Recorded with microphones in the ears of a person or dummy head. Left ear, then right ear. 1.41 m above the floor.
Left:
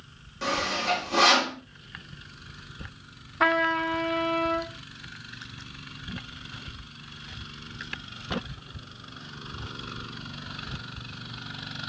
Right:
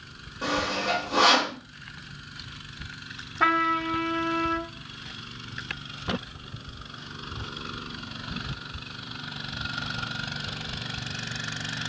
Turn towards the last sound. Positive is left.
turn(degrees=20)  # may be behind; listen again after turning